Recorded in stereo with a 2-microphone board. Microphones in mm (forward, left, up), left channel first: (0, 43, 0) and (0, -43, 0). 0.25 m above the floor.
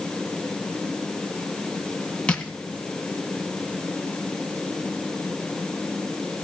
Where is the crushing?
10° left (ahead or behind), 1.8 m.